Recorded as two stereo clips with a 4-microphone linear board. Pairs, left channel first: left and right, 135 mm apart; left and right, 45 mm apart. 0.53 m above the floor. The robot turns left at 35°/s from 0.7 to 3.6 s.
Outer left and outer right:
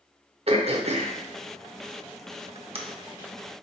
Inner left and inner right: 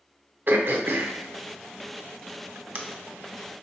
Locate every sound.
0.5 s throat clearing: 50° right (ahead or behind), 0.6 m; by 2.8 s 45° right (ahead or behind), 0.6 m